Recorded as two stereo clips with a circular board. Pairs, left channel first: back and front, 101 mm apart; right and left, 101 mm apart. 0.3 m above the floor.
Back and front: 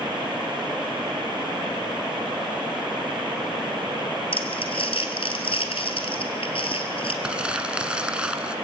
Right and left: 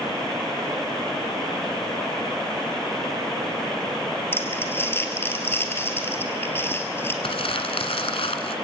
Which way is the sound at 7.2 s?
80° right.